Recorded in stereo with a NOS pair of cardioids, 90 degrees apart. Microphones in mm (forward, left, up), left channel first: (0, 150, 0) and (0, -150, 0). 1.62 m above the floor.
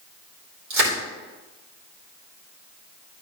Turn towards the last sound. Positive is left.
turn(degrees=-65)